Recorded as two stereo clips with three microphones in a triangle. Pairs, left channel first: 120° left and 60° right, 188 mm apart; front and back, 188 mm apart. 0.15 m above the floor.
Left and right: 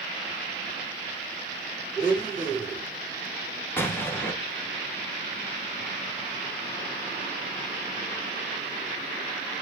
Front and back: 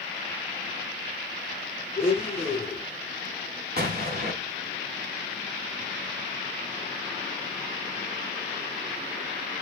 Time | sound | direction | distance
2.0 | a blender | 55° left | 2.5 m
3.8 | an explosion | 165° right | 0.9 m